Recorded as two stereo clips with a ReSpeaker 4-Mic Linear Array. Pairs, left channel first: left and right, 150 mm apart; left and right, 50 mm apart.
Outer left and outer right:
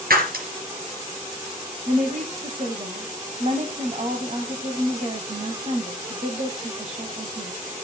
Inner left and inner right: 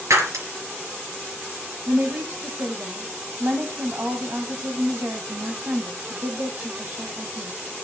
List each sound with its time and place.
0.1 s breaking glass: 80° right, 4 m
1.9 s a woman speaking: 50° right (ahead or behind), 1.6 m